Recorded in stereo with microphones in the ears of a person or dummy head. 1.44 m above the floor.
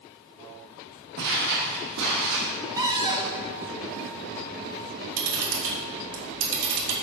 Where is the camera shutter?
75° right (ahead or behind), 2 m.